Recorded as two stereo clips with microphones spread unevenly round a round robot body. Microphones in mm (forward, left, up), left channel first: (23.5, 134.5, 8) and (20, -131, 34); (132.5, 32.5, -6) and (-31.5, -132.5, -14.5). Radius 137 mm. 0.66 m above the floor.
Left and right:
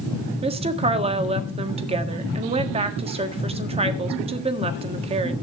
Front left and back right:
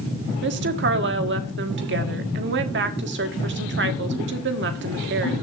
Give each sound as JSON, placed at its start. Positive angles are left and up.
{"t": 0.4, "sound": "a woman speaking", "azimuth_deg": -160, "distance_m": 1.4}